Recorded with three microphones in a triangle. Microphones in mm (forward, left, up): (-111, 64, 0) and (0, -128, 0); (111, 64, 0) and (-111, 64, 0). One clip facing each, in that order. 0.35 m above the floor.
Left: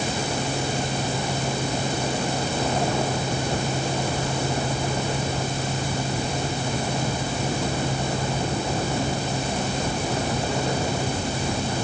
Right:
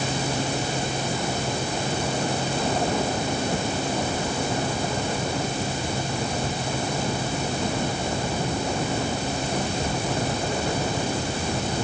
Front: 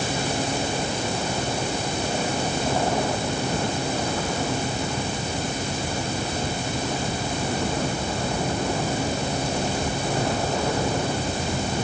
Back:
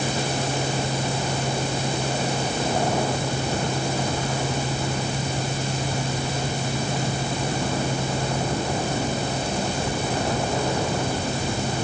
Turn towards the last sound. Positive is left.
No sound to turn to.